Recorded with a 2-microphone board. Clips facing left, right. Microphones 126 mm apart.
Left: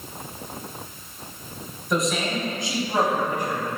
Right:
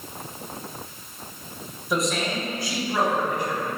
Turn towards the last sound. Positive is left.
turn(degrees=55)  # may be behind; listen again after turning